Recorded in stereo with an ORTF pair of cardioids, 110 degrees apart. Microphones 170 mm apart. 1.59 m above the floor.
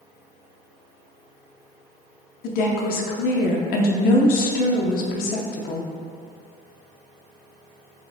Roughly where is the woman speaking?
Ahead left.